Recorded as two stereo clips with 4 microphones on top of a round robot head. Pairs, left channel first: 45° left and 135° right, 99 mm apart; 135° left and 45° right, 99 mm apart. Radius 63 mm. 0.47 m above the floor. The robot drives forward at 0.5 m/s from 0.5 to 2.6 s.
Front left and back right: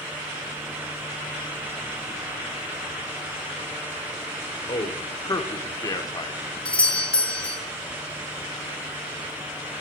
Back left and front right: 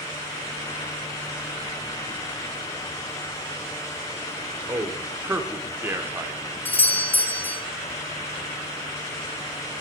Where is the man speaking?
15° left, 1.3 m.